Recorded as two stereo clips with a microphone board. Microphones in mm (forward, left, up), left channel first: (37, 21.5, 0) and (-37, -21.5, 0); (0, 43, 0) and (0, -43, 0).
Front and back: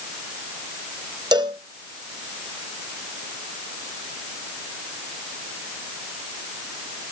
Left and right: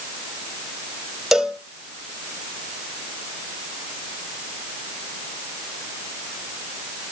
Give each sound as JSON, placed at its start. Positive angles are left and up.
{"t": 1.3, "sound": "a cowbell", "azimuth_deg": -175, "distance_m": 1.2}